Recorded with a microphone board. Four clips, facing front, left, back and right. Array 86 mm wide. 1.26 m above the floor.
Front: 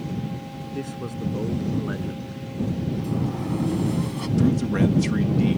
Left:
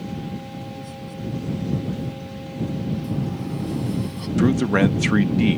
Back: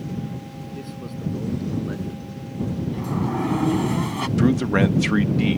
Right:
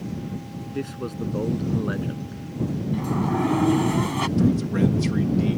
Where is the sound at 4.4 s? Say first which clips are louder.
Left 4 dB, back 2 dB; 125° left.